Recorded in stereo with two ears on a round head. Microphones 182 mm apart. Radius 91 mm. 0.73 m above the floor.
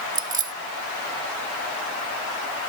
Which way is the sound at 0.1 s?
20° right (ahead or behind).